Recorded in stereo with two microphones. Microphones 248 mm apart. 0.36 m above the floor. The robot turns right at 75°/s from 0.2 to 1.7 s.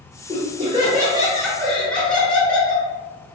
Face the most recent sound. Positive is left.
turn(degrees=5)  # may be behind; listen again after turning